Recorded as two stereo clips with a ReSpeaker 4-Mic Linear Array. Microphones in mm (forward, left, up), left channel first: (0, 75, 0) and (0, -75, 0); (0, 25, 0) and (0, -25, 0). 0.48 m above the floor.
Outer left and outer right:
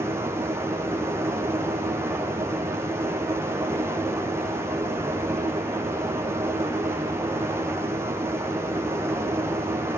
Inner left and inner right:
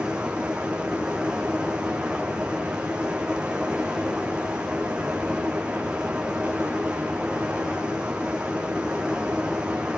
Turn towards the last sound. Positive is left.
turn(degrees=-15)  # may be behind; listen again after turning